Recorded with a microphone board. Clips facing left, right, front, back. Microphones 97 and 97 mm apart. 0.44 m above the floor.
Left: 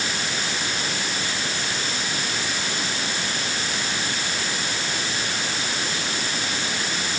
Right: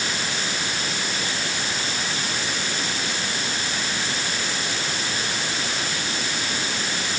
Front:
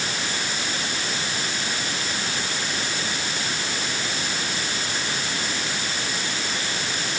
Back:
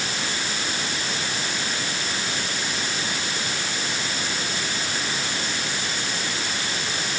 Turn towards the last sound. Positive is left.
No sound to turn to.